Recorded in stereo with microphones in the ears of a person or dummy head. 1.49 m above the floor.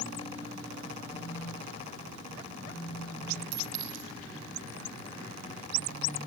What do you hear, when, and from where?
1.1 s a phone buzzing: 5° right (ahead or behind), 3.5 m
3.5 s a clink: 40° right (ahead or behind), 5.5 m